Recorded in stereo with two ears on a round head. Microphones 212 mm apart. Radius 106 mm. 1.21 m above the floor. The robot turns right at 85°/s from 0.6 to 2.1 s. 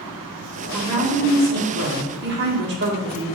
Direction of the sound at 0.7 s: 165° right.